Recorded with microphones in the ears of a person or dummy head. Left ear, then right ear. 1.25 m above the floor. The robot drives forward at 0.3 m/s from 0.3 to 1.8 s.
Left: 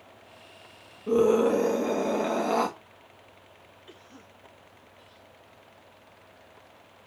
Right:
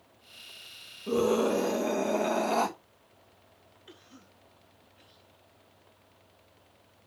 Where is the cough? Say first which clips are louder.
Left 2 dB; 5° right (ahead or behind), 2 m.